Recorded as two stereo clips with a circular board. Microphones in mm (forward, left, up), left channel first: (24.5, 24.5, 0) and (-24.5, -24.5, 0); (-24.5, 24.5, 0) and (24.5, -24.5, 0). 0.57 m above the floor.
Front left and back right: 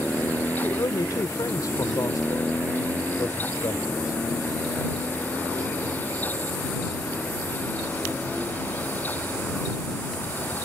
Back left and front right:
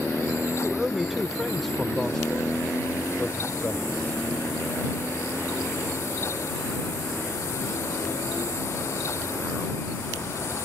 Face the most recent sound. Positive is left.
turn(degrees=70)